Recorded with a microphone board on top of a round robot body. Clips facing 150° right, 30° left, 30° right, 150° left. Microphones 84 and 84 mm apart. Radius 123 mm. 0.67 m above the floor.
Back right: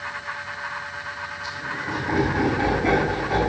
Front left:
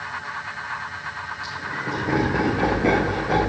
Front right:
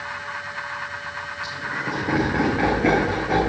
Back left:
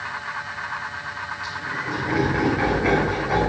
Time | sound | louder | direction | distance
1.4 | laughter | even, front right 1 dB | 40° left | 2.5 m